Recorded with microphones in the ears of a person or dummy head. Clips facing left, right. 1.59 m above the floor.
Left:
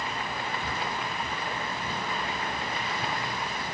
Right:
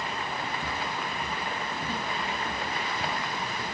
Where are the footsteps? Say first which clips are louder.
Even; 15° right (ahead or behind), 1.6 m; by 3.8 s 55° right (ahead or behind), 2.5 m.